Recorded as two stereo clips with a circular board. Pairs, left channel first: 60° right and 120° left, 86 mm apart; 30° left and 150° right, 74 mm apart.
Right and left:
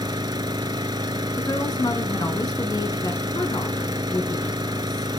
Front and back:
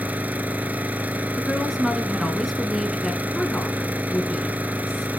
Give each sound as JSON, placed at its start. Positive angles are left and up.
{"t": 0.0, "sound": "an engine running", "azimuth_deg": 145, "distance_m": 0.7}
{"t": 1.4, "sound": "a woman speaking", "azimuth_deg": -60, "distance_m": 1.8}